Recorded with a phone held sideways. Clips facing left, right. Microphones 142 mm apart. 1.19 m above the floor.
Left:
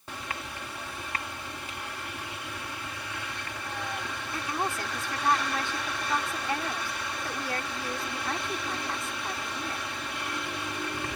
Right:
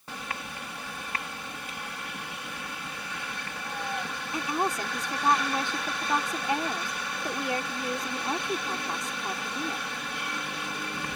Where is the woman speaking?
20° right (ahead or behind).